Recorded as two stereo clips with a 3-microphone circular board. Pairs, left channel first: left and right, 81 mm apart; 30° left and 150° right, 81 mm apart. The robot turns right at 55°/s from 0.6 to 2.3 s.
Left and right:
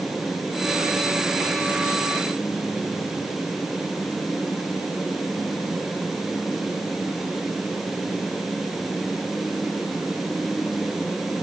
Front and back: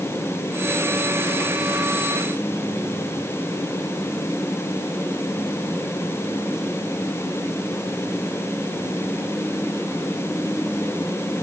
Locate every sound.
Only background noise.